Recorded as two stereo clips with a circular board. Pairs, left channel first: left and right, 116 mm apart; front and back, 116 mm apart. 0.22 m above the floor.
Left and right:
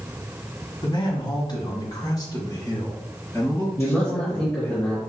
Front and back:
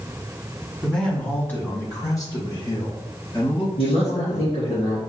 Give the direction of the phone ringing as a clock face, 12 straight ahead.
I don't hear a phone ringing.